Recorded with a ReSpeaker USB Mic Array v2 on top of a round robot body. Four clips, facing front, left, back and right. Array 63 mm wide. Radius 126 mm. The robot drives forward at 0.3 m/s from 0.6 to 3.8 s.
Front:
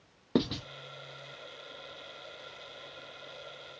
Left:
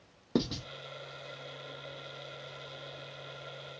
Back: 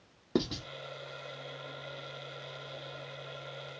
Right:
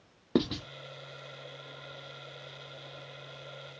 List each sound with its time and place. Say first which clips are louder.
0.3 s writing: right 3 dB, front 2 dB; 55° right, 0.8 m; by 0.7 s 60° right, 0.8 m